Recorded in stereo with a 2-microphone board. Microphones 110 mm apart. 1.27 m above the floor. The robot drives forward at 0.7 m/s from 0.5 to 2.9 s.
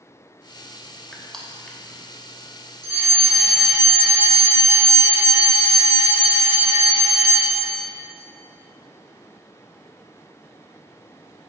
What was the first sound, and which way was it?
Crushing, 5° left (ahead or behind).